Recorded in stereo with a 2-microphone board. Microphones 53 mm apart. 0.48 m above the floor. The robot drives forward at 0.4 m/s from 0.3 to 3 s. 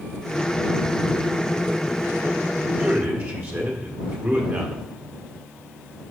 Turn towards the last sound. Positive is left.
turn(degrees=-40)  # may be behind; listen again after turning